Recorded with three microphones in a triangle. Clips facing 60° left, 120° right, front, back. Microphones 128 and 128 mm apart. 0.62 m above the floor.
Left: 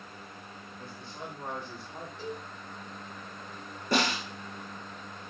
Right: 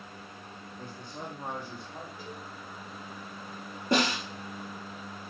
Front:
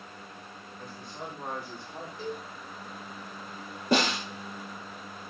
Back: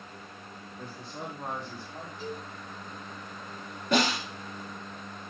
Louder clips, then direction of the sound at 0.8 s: Right 2 dB, back 1 dB; 140° right.